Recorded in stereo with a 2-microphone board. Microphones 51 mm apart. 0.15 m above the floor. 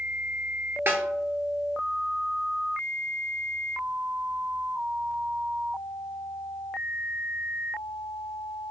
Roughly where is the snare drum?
Right.